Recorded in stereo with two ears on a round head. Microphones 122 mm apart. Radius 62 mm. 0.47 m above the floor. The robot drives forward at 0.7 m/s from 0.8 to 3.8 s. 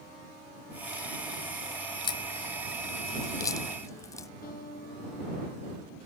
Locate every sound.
2.0 s a crack: 40° left (ahead or behind); by 4.3 s 25° left (ahead or behind)
4.4 s a guitar: 75° left (ahead or behind)